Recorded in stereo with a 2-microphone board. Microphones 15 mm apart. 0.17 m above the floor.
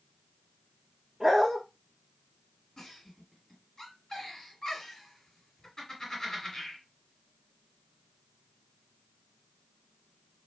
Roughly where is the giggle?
Left.